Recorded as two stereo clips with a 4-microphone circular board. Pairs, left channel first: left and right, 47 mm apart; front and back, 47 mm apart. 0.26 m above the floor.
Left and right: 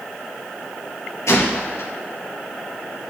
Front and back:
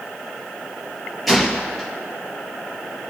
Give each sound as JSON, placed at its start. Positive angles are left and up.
{"t": 1.3, "sound": "a gunshot", "azimuth_deg": 90, "distance_m": 4.5}